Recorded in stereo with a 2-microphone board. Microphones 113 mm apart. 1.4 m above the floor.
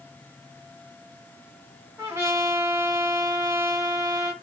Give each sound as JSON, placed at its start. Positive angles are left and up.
{"t": 2.0, "sound": "a trumpet", "side_deg": -25, "distance_m": 1.3}